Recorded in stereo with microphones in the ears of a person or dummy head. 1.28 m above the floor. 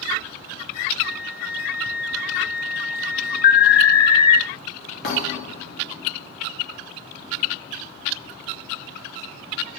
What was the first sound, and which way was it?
A flute, 70° left (ahead or behind).